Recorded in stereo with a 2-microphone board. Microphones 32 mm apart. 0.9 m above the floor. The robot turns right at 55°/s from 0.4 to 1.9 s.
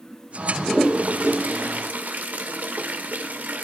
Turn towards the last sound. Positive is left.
turn(degrees=-70)  # may be behind; listen again after turning